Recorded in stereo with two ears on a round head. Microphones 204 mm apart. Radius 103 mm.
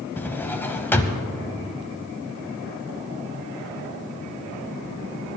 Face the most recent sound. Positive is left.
turn(degrees=10)  # may be behind; listen again after turning